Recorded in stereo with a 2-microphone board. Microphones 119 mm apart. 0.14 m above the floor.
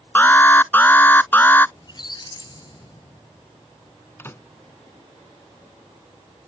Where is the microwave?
20° left (ahead or behind).